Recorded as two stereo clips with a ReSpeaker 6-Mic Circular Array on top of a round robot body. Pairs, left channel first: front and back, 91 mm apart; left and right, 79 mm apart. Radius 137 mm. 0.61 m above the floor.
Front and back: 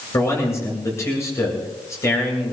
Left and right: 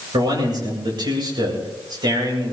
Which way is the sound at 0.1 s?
60° right.